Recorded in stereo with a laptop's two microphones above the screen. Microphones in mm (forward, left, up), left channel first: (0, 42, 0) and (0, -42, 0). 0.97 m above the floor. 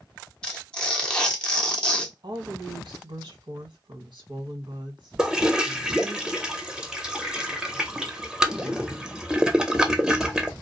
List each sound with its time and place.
0.4 s tearing paper: 10° left (ahead or behind), 0.6 m
2.2 s a woman speaking: 70° right (ahead or behind), 1.0 m
5.2 s a toilet flushing: 10° right (ahead or behind), 0.6 m